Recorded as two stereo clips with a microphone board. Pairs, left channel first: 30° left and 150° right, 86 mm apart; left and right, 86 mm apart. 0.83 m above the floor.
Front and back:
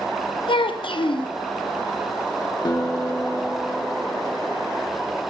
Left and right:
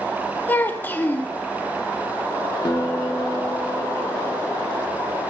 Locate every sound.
0.5 s a child speaking: 20° left, 0.6 m
2.6 s a guitar: 65° left, 0.9 m